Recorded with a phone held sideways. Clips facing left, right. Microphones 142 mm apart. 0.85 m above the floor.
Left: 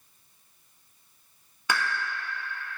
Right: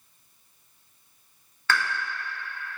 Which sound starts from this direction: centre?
A pop, at 1.7 s.